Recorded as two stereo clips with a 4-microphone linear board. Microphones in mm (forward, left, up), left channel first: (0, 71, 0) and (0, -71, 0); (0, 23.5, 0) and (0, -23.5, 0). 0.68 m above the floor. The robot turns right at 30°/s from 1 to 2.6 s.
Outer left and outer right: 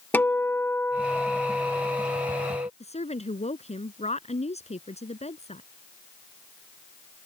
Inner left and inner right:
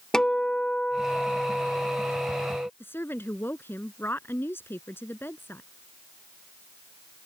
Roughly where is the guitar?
Behind.